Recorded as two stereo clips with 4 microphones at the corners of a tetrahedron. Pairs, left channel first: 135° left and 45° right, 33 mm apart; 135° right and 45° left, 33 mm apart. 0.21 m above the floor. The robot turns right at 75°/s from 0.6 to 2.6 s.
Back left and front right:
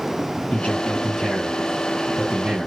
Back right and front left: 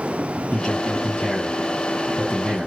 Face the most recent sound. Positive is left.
turn(degrees=-50)